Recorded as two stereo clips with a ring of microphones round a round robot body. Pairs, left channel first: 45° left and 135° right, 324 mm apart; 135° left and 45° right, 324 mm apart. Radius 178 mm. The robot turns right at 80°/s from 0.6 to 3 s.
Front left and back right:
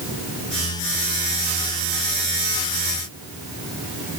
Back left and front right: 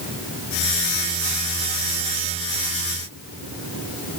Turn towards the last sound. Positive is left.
No sound to turn to.